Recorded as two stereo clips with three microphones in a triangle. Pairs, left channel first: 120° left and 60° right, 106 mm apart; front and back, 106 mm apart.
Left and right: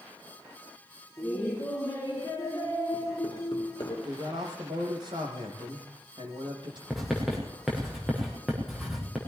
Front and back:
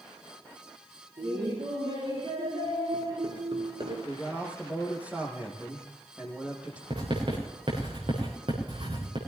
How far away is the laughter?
About 3.5 m.